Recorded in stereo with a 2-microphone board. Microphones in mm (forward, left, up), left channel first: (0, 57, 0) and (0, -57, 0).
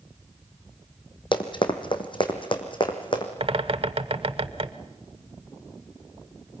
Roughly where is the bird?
Right.